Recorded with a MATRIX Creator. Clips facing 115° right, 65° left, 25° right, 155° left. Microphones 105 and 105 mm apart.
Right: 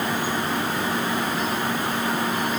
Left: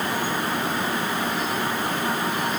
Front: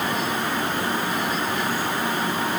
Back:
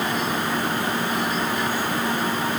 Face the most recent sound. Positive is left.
No sound to turn to.